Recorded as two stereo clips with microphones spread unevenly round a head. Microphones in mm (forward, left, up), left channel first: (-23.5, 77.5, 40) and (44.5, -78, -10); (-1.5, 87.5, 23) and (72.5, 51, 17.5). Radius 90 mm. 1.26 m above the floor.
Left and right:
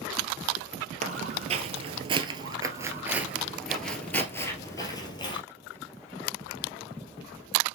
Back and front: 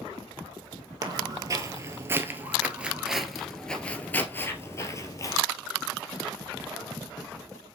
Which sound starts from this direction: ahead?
Footsteps, at 1.0 s.